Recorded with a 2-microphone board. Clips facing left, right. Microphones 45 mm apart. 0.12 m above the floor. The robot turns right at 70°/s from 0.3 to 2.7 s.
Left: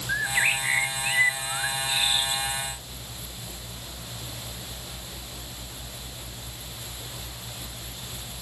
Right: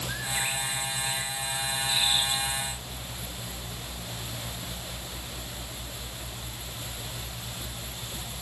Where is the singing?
No singing in this recording.